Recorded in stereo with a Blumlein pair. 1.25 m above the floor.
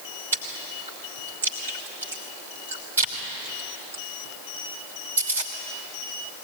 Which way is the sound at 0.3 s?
70° right.